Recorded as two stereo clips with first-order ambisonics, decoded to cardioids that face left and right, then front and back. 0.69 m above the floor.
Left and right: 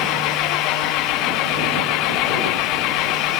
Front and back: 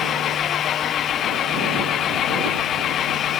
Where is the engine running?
60° left.